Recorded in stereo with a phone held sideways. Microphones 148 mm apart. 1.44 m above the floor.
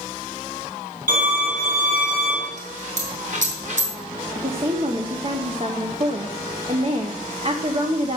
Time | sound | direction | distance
1.1 | a violin | 65° right (ahead or behind) | 4 m
2.6 | a dropped coin | 55° right (ahead or behind) | 4 m
4.3 | a woman speaking | 40° right (ahead or behind) | 1.2 m